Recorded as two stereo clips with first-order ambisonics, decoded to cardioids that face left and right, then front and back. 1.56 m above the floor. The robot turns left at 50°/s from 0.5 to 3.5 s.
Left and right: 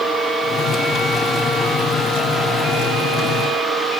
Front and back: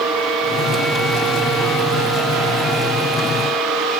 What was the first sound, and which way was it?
Only background noise.